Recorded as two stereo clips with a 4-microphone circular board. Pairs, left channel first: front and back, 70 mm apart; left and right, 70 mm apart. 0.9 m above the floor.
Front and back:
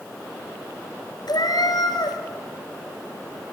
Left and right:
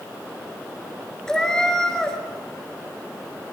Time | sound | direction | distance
1.3 | a cat meowing | 10° left | 2.5 m